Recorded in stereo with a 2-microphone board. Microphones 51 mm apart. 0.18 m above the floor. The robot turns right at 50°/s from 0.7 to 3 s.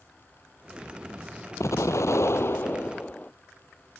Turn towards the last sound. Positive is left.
turn(degrees=150)